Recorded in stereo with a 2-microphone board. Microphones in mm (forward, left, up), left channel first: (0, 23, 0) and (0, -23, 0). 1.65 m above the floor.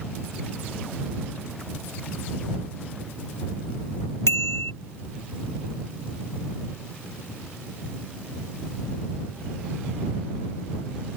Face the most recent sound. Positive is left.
turn(degrees=80)